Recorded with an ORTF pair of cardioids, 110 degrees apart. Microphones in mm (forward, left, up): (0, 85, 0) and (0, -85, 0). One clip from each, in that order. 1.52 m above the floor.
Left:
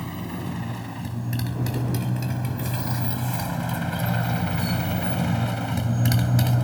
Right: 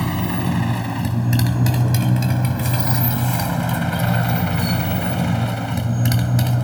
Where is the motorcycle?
60° right; by 6.6 s 10° right.